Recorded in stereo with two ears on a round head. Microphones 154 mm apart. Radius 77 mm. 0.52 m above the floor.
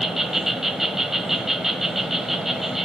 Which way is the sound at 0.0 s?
Centre (ahead or behind).